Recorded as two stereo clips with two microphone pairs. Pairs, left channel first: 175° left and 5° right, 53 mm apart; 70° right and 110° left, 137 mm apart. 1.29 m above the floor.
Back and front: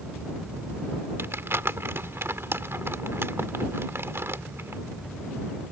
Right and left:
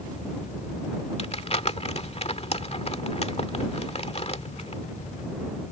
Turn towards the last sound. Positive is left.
turn(degrees=-35)